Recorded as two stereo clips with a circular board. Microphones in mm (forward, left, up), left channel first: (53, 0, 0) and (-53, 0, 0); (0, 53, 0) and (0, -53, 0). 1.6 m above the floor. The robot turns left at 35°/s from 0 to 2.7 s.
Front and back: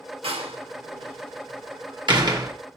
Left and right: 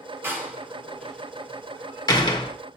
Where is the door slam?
155° right, 1.5 m; by 2.5 s 125° left, 1.5 m.